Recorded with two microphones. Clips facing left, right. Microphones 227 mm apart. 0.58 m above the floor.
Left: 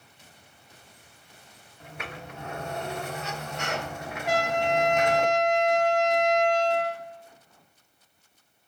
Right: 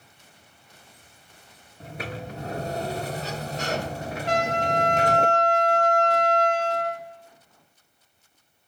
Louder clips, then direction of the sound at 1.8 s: Right 6 dB; 35° right (ahead or behind).